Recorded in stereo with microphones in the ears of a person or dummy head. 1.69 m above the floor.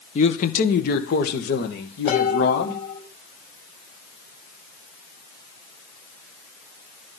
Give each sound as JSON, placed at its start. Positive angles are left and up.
{"t": 0.1, "sound": "a man speaking", "side_deg": 35, "distance_m": 1.2}
{"t": 2.1, "sound": "dishes clattering", "side_deg": 45, "distance_m": 6.5}